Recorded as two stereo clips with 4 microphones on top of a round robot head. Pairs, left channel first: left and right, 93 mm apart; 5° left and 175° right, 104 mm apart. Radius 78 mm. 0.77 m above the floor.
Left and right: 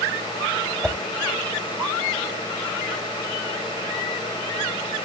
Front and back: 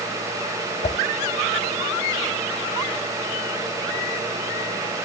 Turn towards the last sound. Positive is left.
turn(degrees=5)